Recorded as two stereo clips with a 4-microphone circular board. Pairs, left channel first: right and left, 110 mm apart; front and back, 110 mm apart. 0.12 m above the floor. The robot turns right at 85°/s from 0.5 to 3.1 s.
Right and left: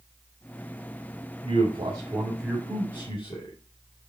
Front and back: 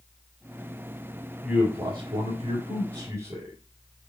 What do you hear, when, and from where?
1.4 s a man speaking: 95° left, 3.5 m; by 3.5 s 120° right, 3.5 m